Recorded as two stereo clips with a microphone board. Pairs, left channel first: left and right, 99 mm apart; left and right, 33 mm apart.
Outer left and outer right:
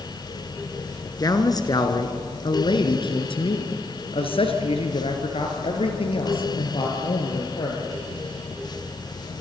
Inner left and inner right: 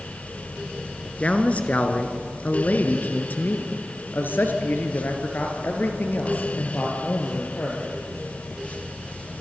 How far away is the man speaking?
About 2.5 m.